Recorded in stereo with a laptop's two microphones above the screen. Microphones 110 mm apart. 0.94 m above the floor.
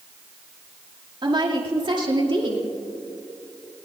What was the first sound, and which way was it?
A woman speaking, 45° right (ahead or behind).